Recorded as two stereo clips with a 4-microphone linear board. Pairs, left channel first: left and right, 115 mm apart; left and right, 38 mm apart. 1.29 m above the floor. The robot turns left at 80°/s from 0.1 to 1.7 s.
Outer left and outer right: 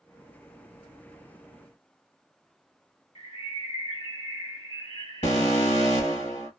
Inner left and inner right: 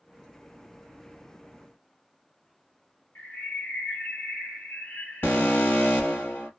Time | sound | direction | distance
3.1 | a bird | 75° left (ahead or behind) | 3 m
5.2 | an alarm | 85° left | 1.6 m